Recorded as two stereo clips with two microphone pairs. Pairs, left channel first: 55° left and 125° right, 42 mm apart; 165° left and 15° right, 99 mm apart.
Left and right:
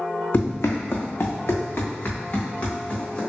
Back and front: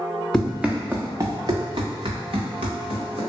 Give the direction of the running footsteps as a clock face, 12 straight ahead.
9 o'clock.